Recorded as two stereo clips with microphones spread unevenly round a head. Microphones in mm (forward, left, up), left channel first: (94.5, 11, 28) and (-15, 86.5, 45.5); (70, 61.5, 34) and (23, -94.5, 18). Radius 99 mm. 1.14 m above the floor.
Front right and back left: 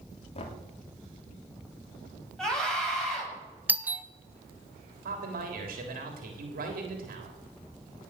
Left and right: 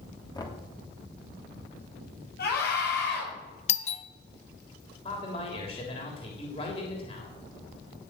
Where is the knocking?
5° left, 2.5 m.